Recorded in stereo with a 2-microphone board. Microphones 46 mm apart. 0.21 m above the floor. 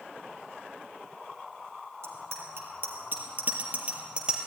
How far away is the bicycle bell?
About 4 m.